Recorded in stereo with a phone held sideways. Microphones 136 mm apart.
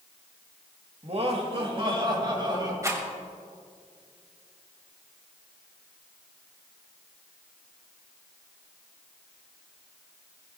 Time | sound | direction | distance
1.0 | laughter | 50° right (ahead or behind) | 1.8 m
2.8 | a rattle | 25° right (ahead or behind) | 2.5 m